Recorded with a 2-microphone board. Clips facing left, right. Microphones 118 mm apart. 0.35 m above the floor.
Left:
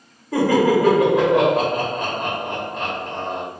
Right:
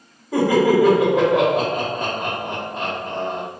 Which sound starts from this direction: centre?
Laughter, at 0.3 s.